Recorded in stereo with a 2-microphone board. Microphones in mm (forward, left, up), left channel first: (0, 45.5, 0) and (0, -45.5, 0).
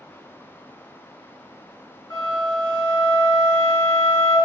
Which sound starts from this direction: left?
A flute, at 2.1 s.